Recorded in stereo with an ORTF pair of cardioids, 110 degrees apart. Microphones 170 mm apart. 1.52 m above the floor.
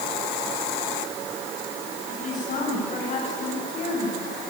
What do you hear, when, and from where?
2.1 s a woman speaking: 45° left, 10 m